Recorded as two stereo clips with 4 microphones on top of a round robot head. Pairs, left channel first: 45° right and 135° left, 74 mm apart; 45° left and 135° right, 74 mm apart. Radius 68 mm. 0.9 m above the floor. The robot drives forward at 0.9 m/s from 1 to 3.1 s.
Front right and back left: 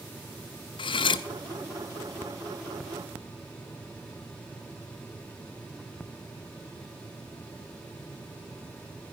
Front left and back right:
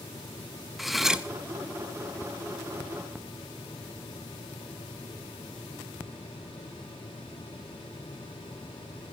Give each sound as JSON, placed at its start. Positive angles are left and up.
{"t": 0.8, "sound": "cutlery clinking", "azimuth_deg": -45, "distance_m": 0.8}